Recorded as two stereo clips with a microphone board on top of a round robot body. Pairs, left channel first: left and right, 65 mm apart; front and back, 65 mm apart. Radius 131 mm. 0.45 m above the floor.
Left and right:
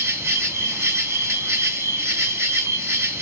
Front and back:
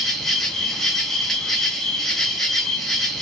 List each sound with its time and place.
0.0 s an insect: 80° right, 1.6 m